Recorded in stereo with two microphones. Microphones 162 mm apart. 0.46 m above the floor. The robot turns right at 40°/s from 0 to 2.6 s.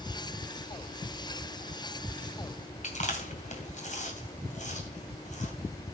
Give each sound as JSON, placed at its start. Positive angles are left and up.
{"t": 2.8, "sound": "chewing", "side_deg": 50, "distance_m": 2.5}